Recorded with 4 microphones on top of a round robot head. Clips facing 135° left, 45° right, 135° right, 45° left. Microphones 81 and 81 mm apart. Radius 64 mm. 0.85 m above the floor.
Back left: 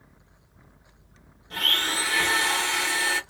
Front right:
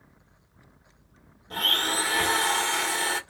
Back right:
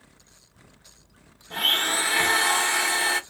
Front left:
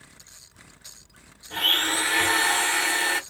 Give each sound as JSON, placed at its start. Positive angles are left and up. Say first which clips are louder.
{"t": 1.5, "sound": "a blender", "louder": "even, even", "azimuth_deg": -65, "distance_m": 1.4}